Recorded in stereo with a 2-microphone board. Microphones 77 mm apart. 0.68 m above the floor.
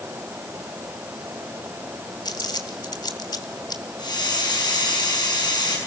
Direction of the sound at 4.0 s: 70° left (ahead or behind).